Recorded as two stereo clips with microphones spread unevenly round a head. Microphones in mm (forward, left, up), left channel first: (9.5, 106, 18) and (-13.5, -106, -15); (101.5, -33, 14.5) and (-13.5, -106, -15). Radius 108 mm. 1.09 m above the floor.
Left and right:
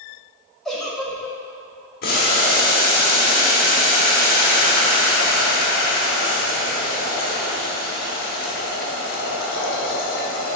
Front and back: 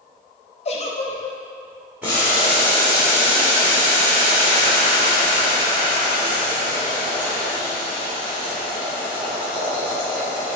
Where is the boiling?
125° left, 1.7 m.